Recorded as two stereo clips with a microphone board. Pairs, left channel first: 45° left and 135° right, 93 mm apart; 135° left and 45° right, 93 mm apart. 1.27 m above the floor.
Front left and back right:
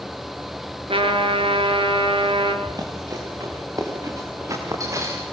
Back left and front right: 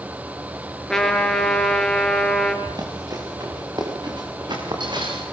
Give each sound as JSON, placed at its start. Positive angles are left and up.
{"t": 0.9, "sound": "a trumpet", "azimuth_deg": -140, "distance_m": 4.0}
{"t": 2.6, "sound": "running footsteps", "azimuth_deg": -90, "distance_m": 9.5}